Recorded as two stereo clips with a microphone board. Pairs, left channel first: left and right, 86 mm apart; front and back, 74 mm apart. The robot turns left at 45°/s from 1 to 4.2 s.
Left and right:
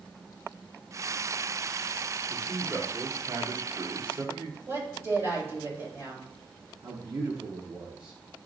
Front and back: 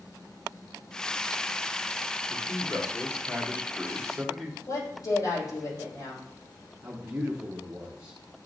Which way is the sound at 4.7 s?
30° right.